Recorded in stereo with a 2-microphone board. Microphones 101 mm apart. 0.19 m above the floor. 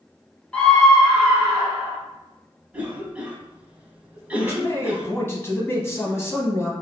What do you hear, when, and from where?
0.5 s a scream: 15° left (ahead or behind), 1.3 m; by 2.0 s 20° right (ahead or behind), 1.9 m
2.7 s a cough: 15° right (ahead or behind), 1.0 m
4.3 s a man speaking: 25° left (ahead or behind), 1.2 m